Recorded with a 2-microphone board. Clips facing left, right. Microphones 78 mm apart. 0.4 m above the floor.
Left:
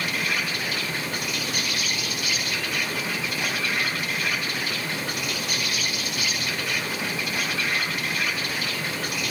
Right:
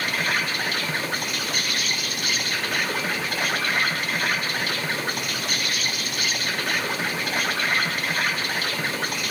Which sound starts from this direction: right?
An insect, at 0.0 s.